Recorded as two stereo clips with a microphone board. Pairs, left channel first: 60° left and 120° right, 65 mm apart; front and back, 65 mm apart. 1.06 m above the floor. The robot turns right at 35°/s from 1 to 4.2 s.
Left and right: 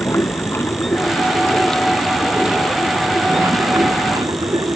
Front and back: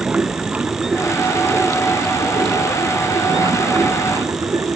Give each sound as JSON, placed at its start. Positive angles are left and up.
{"t": 0.0, "sound": "running water", "azimuth_deg": 110}